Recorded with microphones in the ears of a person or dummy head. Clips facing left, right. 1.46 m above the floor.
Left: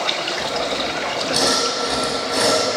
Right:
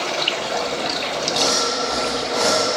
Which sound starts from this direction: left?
Sawing, at 0.4 s.